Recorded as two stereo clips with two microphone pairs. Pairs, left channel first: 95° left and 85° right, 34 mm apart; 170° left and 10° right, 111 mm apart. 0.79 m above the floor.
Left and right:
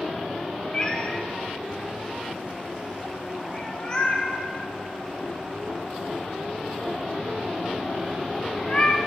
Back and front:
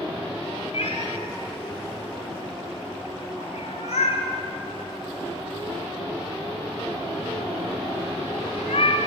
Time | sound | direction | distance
0.7 | a cat meowing | 160° left | 1.2 m